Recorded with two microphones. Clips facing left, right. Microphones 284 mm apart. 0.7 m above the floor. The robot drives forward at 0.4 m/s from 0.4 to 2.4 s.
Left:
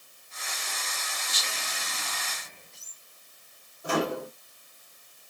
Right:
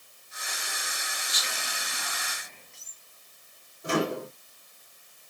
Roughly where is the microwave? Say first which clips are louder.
Right 1 dB; right.